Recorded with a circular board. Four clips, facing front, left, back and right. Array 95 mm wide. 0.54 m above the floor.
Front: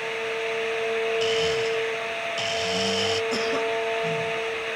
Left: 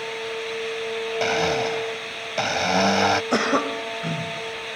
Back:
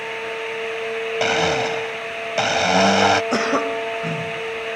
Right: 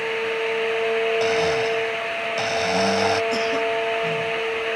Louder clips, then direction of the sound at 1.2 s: Right 2 dB, back 4 dB; 165° left.